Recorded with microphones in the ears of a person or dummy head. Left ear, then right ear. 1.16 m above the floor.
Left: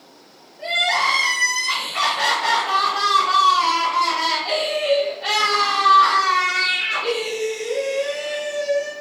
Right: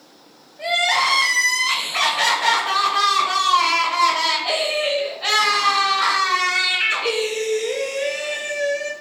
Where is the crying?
55° right (ahead or behind), 0.7 m.